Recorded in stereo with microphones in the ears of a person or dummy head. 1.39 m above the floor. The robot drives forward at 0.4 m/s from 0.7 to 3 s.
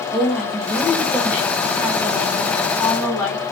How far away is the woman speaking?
About 2.5 m.